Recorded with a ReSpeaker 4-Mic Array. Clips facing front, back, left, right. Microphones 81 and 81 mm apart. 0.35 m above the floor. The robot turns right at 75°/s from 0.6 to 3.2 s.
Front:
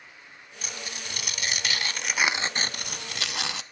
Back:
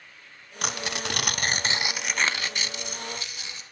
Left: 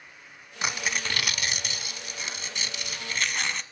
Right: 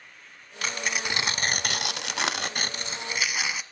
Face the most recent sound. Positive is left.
turn(degrees=-5)